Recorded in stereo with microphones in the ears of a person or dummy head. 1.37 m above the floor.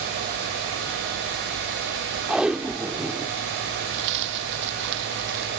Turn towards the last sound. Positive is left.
turn(degrees=-65)  # may be behind; listen again after turning